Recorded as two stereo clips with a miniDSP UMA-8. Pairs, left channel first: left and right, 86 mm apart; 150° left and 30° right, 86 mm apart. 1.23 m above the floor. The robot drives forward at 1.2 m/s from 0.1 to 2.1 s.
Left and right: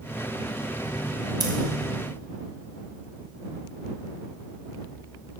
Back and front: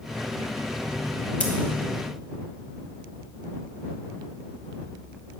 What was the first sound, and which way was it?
Scissors, 135° right.